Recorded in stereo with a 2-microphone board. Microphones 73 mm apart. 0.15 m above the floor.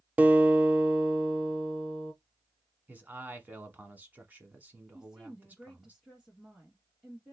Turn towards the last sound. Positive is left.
turn(degrees=-5)  # may be behind; listen again after turning